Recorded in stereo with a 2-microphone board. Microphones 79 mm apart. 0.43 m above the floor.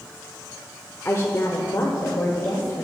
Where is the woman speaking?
35° left (ahead or behind), 0.8 m; by 2.8 s 45° left (ahead or behind), 1.6 m.